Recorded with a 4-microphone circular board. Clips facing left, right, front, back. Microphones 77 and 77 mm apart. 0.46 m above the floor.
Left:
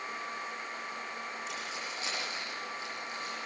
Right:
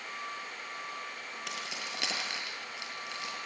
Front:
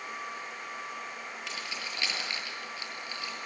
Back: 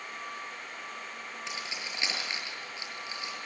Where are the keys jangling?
110° right, 6.5 m.